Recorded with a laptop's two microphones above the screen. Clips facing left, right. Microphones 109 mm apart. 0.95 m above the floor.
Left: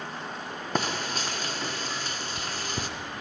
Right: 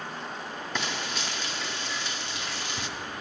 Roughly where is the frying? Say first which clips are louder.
Left 5 dB; left.